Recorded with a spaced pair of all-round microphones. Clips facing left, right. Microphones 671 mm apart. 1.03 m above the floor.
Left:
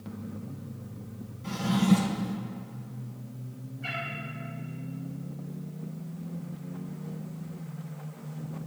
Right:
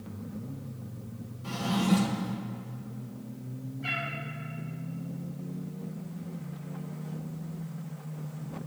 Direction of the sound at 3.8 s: 90° left.